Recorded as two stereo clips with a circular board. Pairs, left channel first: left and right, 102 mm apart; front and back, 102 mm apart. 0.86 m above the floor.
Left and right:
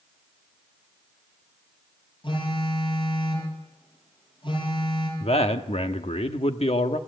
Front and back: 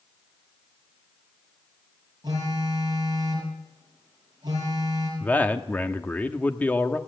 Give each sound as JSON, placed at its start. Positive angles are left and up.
{"t": 2.2, "sound": "a phone buzzing", "azimuth_deg": 130, "distance_m": 7.0}
{"t": 5.2, "sound": "a man speaking", "azimuth_deg": 75, "distance_m": 1.2}